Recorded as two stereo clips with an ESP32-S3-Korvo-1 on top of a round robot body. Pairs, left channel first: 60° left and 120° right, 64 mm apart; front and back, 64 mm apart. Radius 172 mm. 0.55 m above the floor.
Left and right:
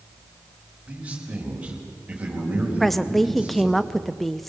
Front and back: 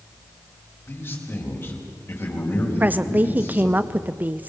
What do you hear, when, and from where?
0.9 s a man speaking: 45° right, 4.5 m
2.8 s a woman speaking: 145° left, 0.7 m